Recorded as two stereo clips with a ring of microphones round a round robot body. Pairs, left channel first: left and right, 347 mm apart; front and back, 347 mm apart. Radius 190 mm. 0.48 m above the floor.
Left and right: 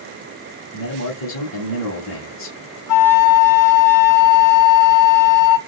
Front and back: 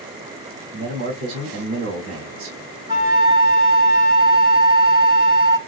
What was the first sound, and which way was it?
A man speaking, 135° left.